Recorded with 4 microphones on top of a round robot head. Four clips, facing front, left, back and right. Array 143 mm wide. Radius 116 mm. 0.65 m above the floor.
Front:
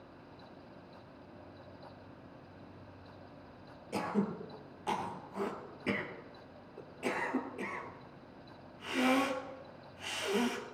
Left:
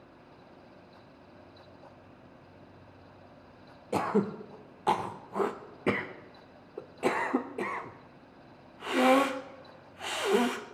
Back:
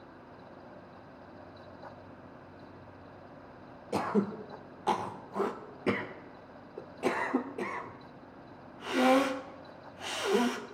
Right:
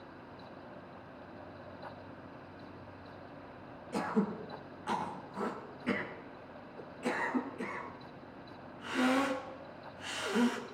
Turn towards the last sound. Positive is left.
turn(degrees=115)